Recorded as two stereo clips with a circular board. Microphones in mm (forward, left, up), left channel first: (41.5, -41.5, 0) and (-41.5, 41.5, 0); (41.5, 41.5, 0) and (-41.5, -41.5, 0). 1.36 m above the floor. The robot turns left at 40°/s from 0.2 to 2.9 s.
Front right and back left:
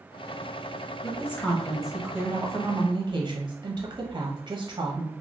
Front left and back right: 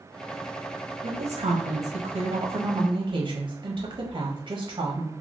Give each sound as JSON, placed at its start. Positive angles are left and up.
{"t": 1.0, "sound": "a woman speaking", "azimuth_deg": -100, "distance_m": 0.6}